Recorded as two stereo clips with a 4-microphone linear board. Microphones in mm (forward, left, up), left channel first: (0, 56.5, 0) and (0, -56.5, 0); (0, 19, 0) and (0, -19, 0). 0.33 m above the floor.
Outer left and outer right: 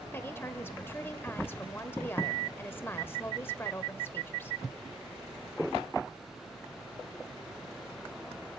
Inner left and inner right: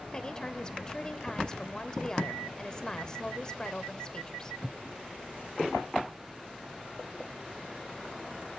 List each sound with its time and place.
0.1 s a woman speaking: 20° left (ahead or behind), 0.9 m